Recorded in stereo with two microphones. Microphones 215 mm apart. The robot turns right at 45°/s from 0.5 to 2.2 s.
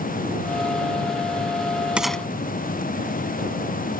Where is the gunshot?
5° right (ahead or behind); by 2.2 s 5° left (ahead or behind).